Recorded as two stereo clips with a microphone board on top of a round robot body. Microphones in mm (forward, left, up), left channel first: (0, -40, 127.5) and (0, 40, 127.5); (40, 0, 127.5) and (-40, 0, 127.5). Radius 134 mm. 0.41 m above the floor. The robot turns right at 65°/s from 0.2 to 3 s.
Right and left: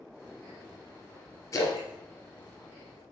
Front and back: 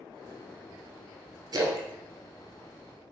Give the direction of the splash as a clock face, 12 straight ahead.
5 o'clock.